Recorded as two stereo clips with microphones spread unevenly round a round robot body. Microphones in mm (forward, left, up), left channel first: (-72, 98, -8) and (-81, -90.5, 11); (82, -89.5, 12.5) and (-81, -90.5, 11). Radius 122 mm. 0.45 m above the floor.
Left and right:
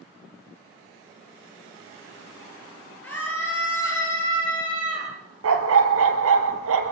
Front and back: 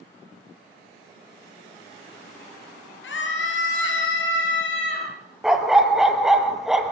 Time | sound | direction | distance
3.0 | a scream | 5° left | 9 m
5.4 | a dog barking | 90° right | 2.5 m